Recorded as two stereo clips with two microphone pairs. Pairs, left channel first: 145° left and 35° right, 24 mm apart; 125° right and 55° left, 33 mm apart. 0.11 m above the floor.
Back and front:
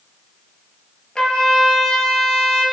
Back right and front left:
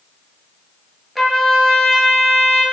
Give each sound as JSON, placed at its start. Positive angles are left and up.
{"t": 1.1, "sound": "a trumpet", "azimuth_deg": 150, "distance_m": 0.8}